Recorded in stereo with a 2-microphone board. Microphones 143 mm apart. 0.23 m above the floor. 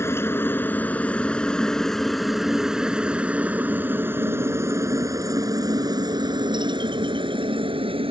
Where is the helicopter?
15° left (ahead or behind); by 8.1 s 40° right (ahead or behind).